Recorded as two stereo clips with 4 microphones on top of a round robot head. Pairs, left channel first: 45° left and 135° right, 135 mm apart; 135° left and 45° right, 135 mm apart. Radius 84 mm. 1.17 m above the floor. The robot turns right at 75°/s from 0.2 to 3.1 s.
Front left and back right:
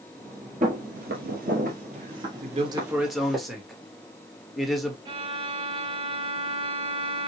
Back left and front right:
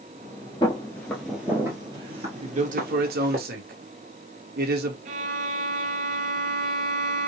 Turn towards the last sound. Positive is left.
turn(degrees=-75)